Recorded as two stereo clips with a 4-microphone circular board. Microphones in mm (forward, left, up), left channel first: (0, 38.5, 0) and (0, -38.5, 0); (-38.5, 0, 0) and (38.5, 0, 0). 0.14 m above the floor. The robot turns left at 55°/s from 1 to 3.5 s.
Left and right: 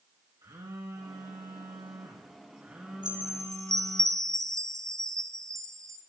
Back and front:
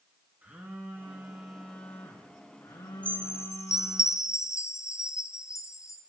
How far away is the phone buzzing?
About 3 m.